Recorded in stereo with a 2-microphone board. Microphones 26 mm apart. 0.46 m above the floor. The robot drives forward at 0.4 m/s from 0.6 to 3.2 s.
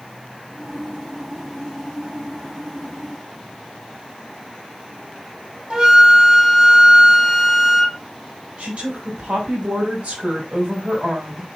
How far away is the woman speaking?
About 3.5 m.